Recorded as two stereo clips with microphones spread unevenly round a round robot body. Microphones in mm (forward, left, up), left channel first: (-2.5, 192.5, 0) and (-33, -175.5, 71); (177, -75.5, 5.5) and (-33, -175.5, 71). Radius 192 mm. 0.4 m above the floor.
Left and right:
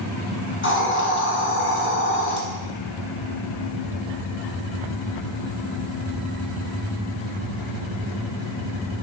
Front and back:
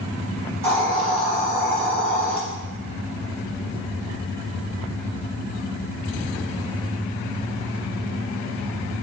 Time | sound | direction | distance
0.6 | a hiss | 145° left | 1.5 m